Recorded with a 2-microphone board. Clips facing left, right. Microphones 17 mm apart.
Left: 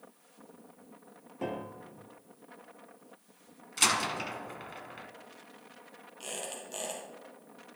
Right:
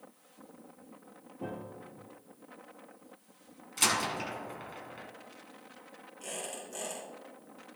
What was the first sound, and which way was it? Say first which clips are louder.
A piano: left 4 dB; 75° left (ahead or behind).